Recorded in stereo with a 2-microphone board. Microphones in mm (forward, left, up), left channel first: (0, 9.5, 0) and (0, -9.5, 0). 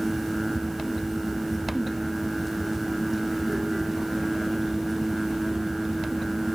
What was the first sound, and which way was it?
Only background noise.